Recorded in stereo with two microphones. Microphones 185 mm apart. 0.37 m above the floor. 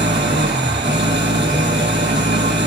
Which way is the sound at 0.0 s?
70° right (ahead or behind).